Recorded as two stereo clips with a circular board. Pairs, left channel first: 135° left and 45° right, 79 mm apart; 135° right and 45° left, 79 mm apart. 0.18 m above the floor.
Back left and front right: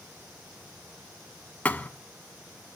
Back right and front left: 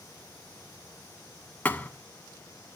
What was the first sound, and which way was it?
A thud, 175° right.